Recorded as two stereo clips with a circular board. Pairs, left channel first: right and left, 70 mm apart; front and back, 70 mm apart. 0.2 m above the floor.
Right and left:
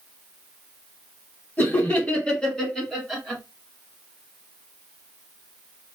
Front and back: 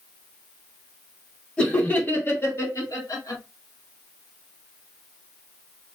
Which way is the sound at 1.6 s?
65° right.